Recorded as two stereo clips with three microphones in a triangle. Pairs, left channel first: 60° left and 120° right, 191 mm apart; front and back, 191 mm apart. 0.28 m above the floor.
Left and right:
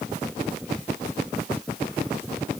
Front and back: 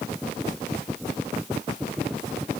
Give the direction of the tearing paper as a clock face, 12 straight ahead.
I don't hear tearing paper.